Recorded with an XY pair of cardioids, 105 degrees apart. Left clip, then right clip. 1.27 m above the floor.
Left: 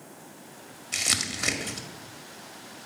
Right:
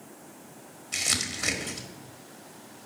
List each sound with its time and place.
0.9 s crumpling: 20° left, 1.7 m